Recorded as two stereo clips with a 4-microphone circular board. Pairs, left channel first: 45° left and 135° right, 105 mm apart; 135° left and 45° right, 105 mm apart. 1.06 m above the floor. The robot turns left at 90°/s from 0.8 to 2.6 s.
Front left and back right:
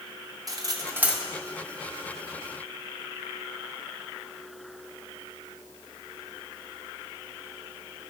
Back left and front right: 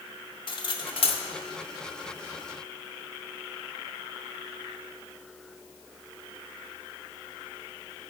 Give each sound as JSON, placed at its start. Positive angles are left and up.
{"t": 0.5, "sound": "cutlery clinking", "azimuth_deg": 170, "distance_m": 0.5}